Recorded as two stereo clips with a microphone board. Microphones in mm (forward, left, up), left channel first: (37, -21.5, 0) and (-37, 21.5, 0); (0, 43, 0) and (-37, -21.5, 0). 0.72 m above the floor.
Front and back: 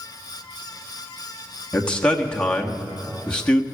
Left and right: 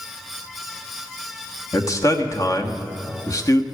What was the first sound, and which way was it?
A man speaking, 45° left.